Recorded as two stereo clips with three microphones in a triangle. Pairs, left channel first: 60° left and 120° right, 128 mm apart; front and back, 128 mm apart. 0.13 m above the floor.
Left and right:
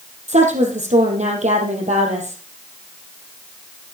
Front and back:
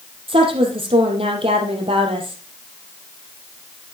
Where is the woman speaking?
140° right, 3.5 m.